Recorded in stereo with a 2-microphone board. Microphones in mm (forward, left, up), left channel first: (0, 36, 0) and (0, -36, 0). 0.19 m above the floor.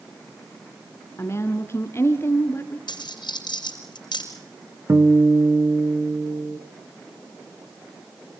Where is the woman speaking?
35° left (ahead or behind), 1.9 m.